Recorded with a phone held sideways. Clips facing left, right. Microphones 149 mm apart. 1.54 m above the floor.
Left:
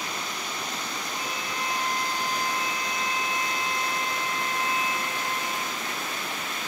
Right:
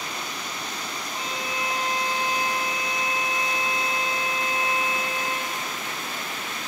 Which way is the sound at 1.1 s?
25° right (ahead or behind).